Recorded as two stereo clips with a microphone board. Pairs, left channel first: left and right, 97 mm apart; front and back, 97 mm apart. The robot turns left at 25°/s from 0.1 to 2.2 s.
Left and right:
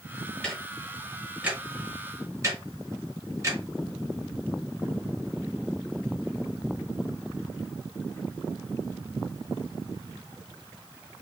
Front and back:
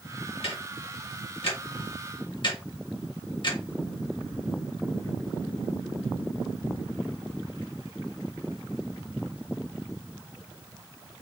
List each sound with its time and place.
0.4 s ticking: 10° left, 1.9 m; by 3.6 s 35° right, 1.9 m